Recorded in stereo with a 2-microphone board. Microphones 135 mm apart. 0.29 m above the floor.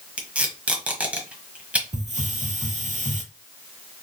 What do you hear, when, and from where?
0.2 s tape being pulled: 10° right (ahead or behind), 1.4 m
1.9 s a hiss: 55° right (ahead or behind), 0.8 m